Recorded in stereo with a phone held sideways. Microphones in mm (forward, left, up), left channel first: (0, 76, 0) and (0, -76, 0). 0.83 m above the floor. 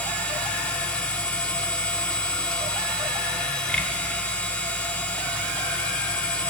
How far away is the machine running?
About 1.5 m.